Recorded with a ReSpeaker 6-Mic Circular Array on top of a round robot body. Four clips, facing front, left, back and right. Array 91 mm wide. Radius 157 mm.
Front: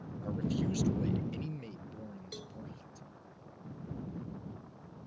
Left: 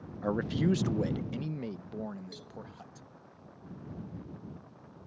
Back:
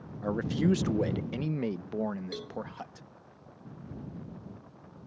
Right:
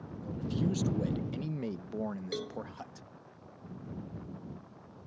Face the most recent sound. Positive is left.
turn(degrees=-115)